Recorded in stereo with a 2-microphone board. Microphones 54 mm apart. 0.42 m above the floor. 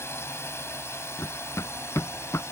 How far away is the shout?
No shout in this recording.